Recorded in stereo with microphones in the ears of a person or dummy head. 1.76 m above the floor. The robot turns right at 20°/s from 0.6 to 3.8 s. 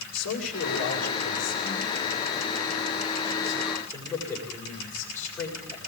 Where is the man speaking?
110° left, 8.5 m; by 5.8 s 175° left, 8.5 m.